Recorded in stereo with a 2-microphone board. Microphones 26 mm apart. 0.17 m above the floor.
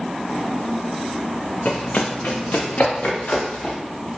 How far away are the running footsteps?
About 0.5 m.